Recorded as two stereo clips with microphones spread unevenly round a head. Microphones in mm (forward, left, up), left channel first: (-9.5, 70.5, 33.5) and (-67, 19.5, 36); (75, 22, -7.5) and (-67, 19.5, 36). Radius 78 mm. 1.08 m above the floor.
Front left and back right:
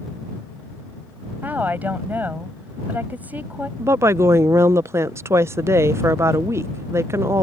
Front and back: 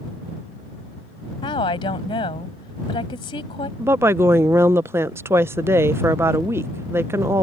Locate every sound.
1.4 s a woman speaking: 60° right
3.8 s a woman speaking: 95° right